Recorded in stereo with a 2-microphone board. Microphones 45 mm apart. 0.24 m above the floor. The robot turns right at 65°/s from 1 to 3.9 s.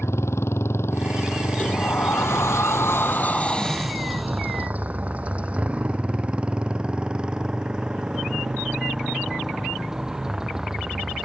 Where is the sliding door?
30° left; by 4.7 s straight behind.